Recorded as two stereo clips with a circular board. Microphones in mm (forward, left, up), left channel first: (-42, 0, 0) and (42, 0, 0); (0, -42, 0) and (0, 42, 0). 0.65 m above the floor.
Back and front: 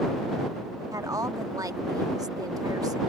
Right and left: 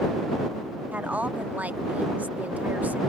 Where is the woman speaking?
25° left.